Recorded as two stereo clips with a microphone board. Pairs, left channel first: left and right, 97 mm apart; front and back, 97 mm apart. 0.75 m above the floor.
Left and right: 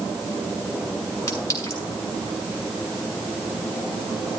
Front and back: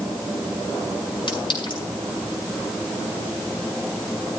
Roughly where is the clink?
Ahead left.